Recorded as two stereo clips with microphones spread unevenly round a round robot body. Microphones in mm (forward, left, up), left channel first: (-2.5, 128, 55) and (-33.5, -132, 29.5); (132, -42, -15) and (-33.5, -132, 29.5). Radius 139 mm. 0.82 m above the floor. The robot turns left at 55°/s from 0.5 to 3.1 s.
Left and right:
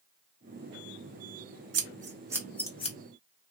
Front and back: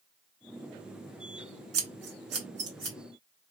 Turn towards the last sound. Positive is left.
turn(degrees=140)